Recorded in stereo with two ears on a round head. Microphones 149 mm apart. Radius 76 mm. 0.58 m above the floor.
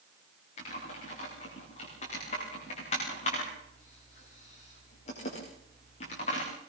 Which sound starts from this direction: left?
Typing on a keyboard, at 0.6 s.